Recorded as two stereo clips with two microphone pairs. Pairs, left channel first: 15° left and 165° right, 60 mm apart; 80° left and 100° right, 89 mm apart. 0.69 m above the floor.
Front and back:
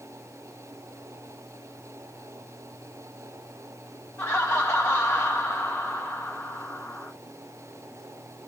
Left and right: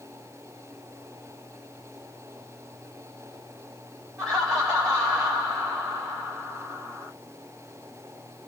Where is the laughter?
50° right, 1.6 m.